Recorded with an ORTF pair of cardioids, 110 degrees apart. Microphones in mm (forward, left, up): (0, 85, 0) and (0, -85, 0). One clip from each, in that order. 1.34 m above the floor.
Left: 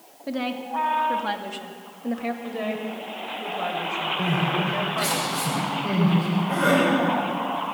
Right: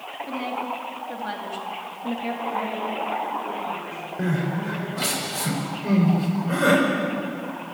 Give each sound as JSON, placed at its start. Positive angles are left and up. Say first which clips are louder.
{"t": 0.3, "sound": "a woman speaking", "louder": "left 1 dB", "azimuth_deg": 30, "distance_m": 3.0}
{"t": 2.4, "sound": "a woman speaking", "louder": "right 3 dB", "azimuth_deg": 55, "distance_m": 7.5}
{"t": 4.2, "sound": "crying", "louder": "even", "azimuth_deg": -20, "distance_m": 6.5}